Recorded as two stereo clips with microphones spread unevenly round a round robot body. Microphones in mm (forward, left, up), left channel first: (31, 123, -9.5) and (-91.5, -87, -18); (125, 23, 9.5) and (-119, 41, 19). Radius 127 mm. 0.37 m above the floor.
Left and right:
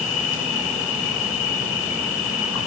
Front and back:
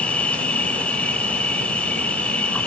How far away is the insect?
About 1.3 m.